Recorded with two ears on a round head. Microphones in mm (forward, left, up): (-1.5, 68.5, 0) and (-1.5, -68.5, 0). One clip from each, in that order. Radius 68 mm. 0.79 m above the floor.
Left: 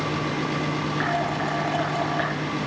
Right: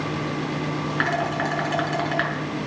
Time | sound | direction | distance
1.0 | dishes clattering | 55° right (ahead or behind) | 6.5 m